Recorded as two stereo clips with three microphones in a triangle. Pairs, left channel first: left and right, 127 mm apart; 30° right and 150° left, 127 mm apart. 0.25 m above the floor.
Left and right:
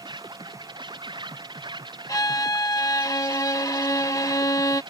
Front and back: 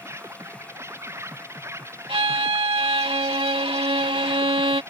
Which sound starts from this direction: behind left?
A violin, at 2.1 s.